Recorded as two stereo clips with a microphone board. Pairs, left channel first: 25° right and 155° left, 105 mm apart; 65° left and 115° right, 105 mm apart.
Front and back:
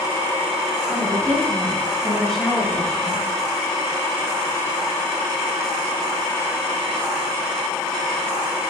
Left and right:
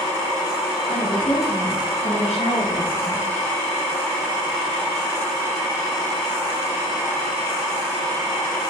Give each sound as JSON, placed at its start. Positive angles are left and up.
{"t": 0.9, "sound": "a woman speaking", "azimuth_deg": 55, "distance_m": 5.5}